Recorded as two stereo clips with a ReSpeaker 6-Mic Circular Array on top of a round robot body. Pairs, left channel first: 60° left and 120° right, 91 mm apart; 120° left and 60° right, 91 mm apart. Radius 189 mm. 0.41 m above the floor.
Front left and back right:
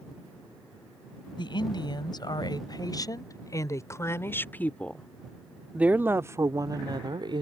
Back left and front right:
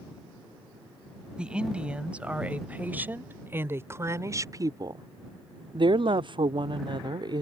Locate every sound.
1.4 s a woman speaking: 20° left; by 7.4 s 95° right